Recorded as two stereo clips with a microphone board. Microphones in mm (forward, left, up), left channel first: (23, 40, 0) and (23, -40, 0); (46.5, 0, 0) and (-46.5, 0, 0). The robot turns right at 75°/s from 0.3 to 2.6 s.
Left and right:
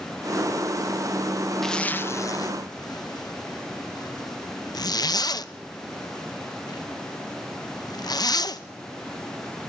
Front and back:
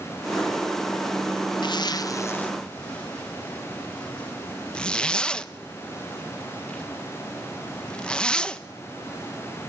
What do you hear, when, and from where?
1.6 s a zipper: 5° left, 0.7 m; by 8.6 s 80° left, 0.7 m